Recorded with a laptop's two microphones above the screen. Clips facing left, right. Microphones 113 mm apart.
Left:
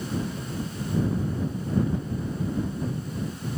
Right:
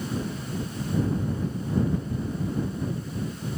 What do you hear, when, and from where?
Only background noise.